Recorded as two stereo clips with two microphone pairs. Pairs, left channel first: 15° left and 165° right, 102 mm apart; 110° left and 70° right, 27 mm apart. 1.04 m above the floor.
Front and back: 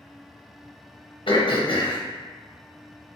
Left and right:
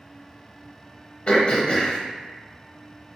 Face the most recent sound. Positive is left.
turn(degrees=50)